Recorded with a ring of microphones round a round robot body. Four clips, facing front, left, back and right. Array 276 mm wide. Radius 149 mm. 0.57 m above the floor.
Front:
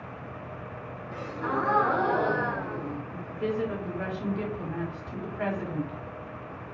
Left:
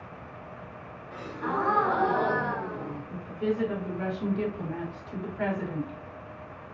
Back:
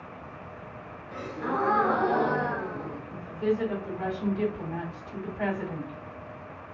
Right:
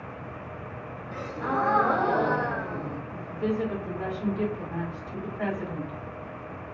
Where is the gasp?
85° right, 1.0 m.